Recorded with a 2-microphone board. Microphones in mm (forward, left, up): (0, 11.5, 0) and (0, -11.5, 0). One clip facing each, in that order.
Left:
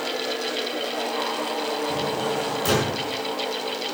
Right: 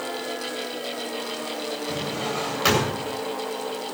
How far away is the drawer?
About 8 m.